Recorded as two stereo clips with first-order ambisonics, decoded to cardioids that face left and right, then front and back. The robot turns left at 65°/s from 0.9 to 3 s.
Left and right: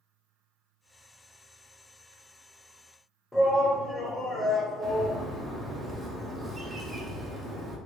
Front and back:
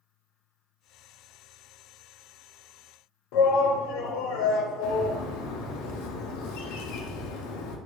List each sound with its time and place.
3.3 s a shout: 5° left, 0.8 m
4.8 s a bird: 15° right, 0.6 m